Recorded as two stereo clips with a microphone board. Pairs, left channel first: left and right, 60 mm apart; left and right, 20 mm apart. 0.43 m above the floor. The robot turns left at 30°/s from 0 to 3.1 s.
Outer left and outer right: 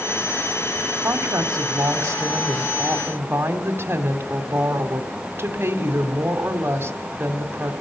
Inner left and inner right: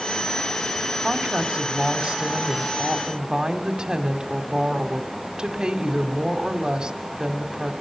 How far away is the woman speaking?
About 2.5 m.